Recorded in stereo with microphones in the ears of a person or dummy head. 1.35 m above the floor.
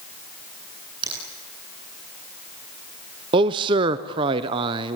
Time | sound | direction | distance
1.0 | a finger snap | 30° right (ahead or behind) | 8 m
3.3 | a man speaking | 25° right (ahead or behind) | 0.8 m